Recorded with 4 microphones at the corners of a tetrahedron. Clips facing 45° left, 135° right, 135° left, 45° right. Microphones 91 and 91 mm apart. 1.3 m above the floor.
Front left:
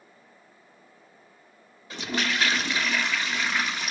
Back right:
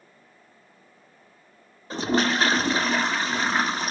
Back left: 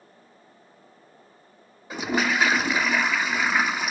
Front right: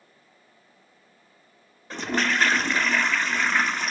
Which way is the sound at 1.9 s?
145° right.